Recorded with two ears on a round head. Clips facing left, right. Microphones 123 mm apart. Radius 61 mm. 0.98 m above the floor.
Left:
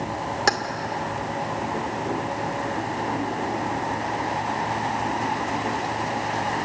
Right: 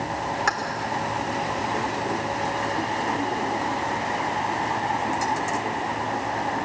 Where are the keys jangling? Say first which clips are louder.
Left 5 dB; 40° left (ahead or behind), 2 m.